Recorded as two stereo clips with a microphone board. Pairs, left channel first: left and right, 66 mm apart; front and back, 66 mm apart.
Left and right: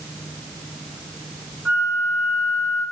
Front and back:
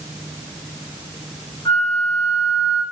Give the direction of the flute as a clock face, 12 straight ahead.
12 o'clock.